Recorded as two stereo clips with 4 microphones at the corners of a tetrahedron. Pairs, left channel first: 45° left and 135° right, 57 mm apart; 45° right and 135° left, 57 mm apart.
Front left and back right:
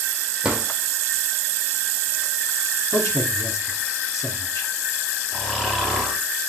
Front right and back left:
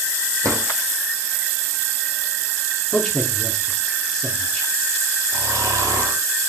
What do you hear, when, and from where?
0.4 s a drawer: 145° left, 2.5 m
2.9 s a man speaking: 35° left, 2 m
5.3 s snoring: 125° left, 3 m